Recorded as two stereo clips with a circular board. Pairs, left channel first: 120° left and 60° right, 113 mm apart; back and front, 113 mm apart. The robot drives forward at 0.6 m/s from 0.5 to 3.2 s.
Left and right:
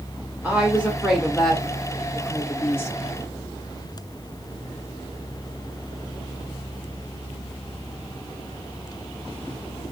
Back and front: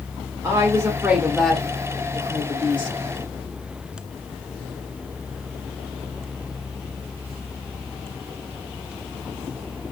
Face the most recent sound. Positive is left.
turn(degrees=180)